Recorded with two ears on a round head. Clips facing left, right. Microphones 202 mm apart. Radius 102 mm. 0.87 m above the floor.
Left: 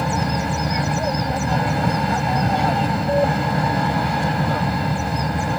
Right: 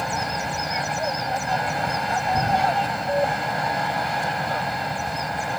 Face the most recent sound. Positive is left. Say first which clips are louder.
# left 6 dB
turn(degrees=70)  # may be behind; listen again after turning